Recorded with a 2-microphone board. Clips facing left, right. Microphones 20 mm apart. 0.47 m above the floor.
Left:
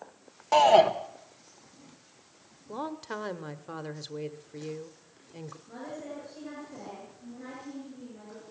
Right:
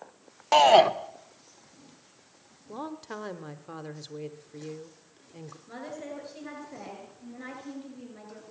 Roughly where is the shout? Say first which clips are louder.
Right 2 dB; right.